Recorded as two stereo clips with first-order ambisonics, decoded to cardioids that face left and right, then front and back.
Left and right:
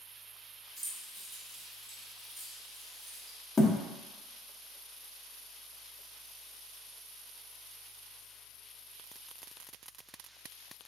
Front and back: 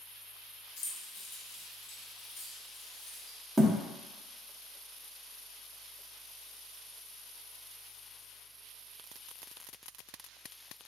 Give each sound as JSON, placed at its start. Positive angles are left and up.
{"t": 0.8, "sound": "keys jangling", "azimuth_deg": -10, "distance_m": 0.9}
{"t": 3.6, "sound": "a thud", "azimuth_deg": 95, "distance_m": 0.6}